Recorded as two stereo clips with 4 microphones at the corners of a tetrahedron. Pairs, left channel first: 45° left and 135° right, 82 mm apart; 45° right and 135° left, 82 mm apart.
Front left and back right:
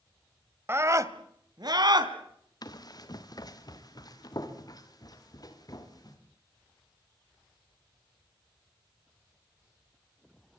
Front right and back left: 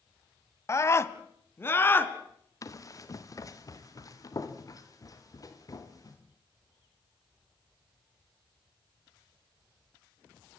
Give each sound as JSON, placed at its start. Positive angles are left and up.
{"t": 0.7, "sound": "a scream", "azimuth_deg": -85, "distance_m": 1.6}
{"t": 2.6, "sound": "running footsteps", "azimuth_deg": 5, "distance_m": 3.0}